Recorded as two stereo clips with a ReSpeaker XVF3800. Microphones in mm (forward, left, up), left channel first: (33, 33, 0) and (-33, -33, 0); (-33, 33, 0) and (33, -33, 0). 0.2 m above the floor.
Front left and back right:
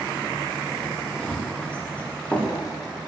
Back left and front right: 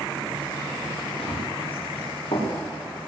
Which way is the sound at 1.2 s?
125° left.